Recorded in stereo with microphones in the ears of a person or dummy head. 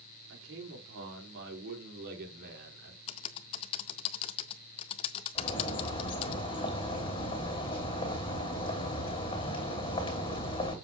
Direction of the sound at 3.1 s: 35° left (ahead or behind).